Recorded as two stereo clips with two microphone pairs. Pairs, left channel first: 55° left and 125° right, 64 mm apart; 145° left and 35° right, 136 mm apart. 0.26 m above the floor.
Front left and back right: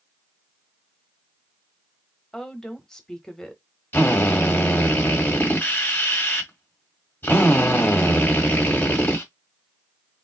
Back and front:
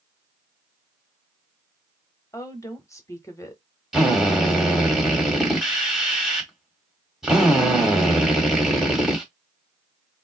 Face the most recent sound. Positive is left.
turn(degrees=50)